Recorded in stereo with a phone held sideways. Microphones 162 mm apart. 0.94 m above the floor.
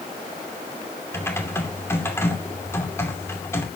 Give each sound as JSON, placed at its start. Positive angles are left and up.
{"t": 1.1, "sound": "typing on a keyboard", "side_deg": 15, "distance_m": 2.5}